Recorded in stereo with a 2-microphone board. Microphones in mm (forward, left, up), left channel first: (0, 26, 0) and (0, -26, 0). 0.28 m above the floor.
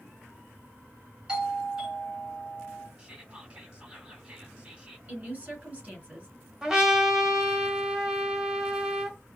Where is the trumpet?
10° right (ahead or behind), 1.6 m.